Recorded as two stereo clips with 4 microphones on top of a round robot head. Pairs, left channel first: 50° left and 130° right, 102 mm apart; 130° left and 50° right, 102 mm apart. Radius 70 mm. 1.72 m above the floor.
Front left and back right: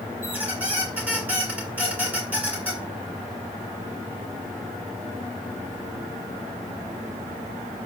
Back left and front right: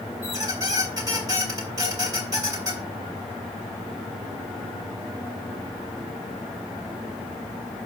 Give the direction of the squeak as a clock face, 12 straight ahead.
2 o'clock.